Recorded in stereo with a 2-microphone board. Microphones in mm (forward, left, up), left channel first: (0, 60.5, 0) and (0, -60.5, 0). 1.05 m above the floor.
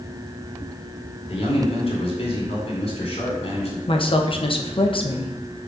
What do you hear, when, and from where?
1.3 s a man speaking: 55° left (ahead or behind), 3.5 m
3.9 s a woman speaking: 50° left (ahead or behind), 1.1 m